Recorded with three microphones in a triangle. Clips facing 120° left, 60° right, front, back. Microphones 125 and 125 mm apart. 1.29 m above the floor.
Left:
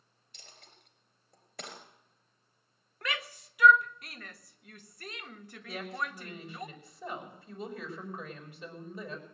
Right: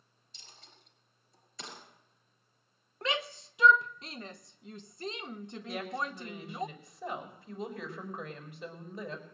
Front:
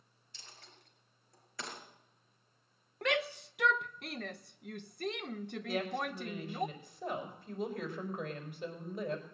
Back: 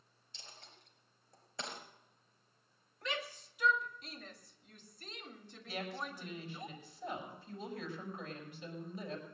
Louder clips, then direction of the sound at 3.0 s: Right 4 dB, front 9 dB; 5° left.